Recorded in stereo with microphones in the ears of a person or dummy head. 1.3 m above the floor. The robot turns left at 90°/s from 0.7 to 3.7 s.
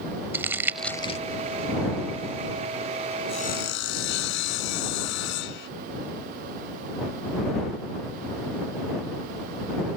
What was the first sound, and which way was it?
Crumpling, 10° right (ahead or behind).